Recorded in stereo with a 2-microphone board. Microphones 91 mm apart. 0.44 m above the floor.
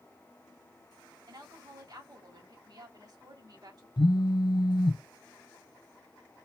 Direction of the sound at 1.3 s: 50° right (ahead or behind).